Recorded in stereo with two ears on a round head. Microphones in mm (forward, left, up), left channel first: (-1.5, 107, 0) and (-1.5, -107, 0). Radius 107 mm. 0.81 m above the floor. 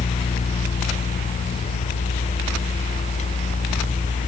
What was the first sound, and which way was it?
Only background noise.